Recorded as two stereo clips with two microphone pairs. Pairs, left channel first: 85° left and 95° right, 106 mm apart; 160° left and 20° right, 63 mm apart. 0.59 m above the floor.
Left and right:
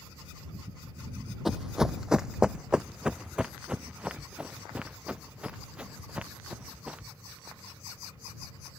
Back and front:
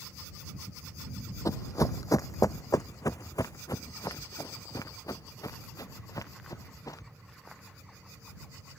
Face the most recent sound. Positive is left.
turn(degrees=-170)